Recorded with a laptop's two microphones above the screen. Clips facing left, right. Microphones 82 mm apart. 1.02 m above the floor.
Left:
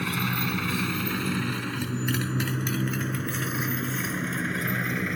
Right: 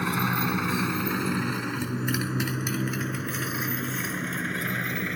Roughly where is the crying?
I don't hear crying.